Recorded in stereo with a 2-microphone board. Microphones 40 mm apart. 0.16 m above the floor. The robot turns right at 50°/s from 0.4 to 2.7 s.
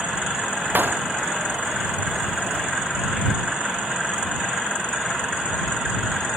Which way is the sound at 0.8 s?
60° right (ahead or behind).